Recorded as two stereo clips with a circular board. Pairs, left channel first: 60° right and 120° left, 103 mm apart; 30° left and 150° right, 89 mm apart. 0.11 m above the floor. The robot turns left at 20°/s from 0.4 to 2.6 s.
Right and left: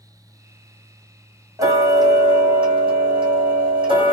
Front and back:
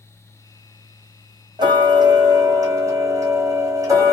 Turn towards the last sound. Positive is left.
turn(degrees=155)